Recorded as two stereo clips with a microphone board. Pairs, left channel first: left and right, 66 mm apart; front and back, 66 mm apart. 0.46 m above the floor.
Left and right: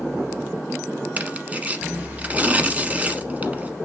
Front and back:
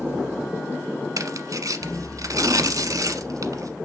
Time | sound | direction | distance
1.2 | tearing paper | 155° right | 1.1 m